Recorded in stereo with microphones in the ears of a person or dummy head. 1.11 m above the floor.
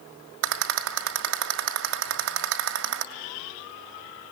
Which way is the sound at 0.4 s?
65° right (ahead or behind).